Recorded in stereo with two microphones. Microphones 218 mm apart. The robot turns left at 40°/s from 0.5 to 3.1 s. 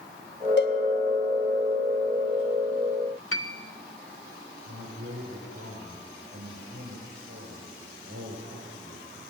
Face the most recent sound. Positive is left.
turn(degrees=-85)